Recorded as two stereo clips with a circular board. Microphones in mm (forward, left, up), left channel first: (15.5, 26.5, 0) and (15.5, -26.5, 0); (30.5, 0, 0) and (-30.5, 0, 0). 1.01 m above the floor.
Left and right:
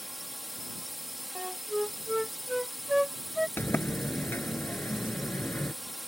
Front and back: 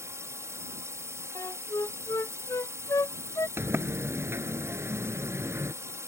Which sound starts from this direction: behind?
A drone, at 0.0 s.